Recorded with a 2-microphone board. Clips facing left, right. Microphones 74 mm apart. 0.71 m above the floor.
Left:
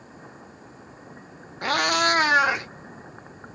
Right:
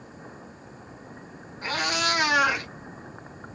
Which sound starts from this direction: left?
A cat meowing, at 1.6 s.